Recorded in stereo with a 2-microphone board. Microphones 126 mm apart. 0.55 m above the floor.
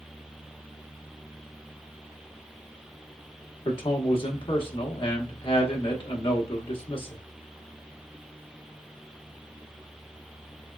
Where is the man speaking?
45° left (ahead or behind), 1.1 m.